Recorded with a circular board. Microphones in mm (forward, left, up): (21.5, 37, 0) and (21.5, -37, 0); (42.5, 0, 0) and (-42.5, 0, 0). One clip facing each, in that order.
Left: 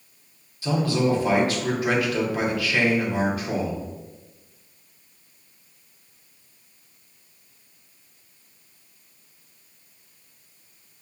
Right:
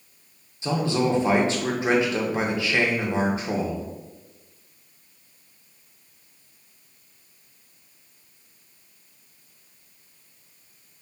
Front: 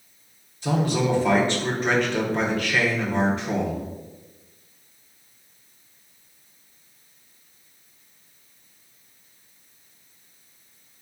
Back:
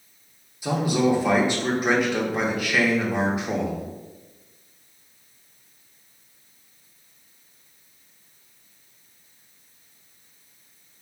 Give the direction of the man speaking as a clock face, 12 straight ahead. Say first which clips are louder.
Left 1 dB, back 1 dB; 4 o'clock.